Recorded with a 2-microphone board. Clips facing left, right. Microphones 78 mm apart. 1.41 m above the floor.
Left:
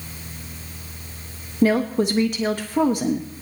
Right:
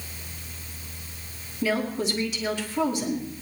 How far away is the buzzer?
No buzzer in this recording.